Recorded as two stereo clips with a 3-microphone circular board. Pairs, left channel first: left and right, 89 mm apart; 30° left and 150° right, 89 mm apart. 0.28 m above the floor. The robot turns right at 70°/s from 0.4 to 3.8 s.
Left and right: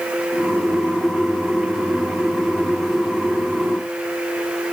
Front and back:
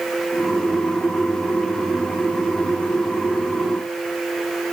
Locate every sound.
Only background noise.